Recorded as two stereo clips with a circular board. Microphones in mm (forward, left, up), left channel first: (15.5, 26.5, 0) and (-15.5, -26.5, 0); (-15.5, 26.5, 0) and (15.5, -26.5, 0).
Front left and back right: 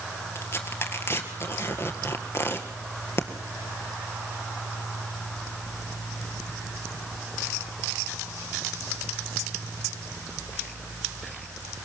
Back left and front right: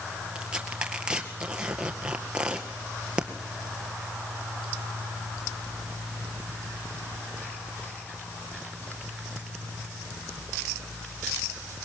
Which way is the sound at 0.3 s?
15° left.